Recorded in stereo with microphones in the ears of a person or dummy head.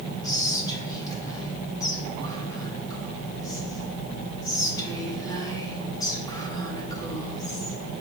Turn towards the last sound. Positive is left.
turn(degrees=25)  # may be behind; listen again after turning